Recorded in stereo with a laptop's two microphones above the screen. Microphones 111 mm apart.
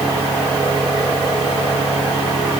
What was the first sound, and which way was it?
Only background noise.